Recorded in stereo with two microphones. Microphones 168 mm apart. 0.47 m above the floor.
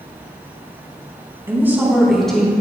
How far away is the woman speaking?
About 3.5 m.